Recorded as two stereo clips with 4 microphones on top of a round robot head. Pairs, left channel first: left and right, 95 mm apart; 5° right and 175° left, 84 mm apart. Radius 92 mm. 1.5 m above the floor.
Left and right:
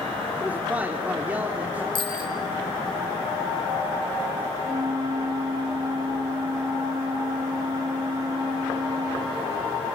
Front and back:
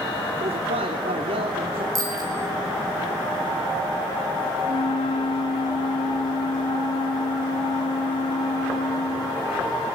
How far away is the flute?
About 0.5 m.